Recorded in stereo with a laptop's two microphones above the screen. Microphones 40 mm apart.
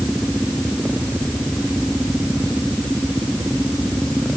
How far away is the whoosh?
I don't hear a whoosh.